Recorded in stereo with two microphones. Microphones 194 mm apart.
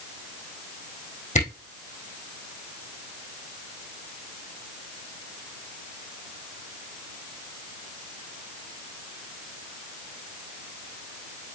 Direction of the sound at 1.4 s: 40° left (ahead or behind).